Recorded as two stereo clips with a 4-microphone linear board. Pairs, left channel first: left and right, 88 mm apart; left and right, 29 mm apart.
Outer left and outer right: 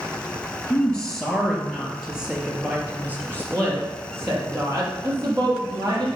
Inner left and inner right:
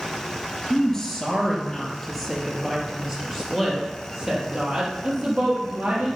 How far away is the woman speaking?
About 3 m.